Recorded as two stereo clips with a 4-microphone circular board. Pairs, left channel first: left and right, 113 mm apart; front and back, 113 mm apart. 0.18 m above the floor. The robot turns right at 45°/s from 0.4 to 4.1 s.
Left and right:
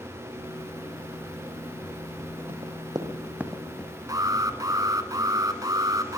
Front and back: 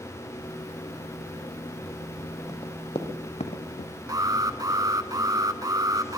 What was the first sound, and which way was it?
Running footsteps, 60° right.